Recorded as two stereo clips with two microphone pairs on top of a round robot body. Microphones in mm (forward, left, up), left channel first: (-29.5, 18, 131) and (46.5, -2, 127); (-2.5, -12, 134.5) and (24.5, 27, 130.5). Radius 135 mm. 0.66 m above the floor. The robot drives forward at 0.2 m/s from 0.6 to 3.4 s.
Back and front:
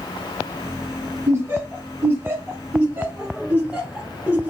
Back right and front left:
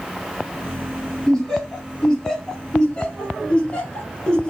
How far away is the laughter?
About 1.5 m.